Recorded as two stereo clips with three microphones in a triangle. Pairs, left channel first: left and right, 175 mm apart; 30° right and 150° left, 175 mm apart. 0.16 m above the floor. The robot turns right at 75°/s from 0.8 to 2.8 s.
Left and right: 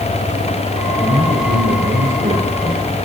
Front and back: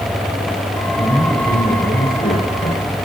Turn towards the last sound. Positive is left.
turn(degrees=-5)